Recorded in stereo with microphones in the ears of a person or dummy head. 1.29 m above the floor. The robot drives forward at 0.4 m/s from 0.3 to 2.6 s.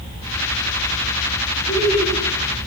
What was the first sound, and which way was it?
Laughter, 20° left (ahead or behind).